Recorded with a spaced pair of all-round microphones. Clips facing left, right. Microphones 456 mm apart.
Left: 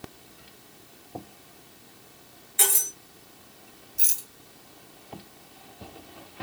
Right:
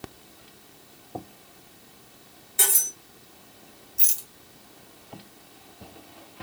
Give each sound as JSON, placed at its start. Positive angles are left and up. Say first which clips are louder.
{"t": 2.6, "sound": "cutlery clinking", "louder": "left 2 dB", "side_deg": -60, "distance_m": 1.3}
{"t": 4.0, "sound": "a rattle", "louder": "even", "side_deg": -20, "distance_m": 0.5}